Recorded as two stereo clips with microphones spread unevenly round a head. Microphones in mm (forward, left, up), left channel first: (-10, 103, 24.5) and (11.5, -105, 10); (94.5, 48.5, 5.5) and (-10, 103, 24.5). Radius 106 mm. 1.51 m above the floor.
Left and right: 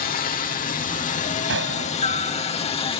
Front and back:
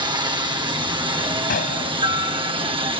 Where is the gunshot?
50° right.